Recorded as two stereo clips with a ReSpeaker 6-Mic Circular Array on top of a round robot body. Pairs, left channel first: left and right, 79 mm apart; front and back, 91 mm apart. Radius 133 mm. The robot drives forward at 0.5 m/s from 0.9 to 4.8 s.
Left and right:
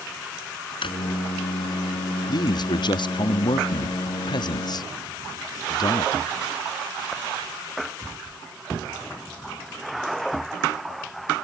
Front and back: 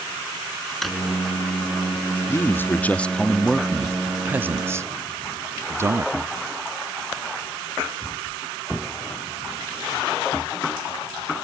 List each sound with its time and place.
0.8 s a drawer: 90° left
2.3 s a man speaking: 60° left; by 6.1 s 120° left